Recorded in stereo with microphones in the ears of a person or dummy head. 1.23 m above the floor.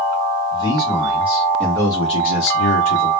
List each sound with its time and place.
0.5 s a man speaking: 25° right (ahead or behind), 1.0 m; by 3.1 s 75° left (ahead or behind), 0.7 m